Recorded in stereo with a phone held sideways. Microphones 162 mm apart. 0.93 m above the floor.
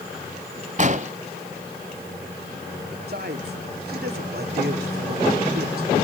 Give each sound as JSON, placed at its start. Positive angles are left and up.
{"t": 0.8, "sound": "an explosion", "side_deg": -45, "distance_m": 1.3}
{"t": 3.1, "sound": "a man speaking", "side_deg": -70, "distance_m": 2.5}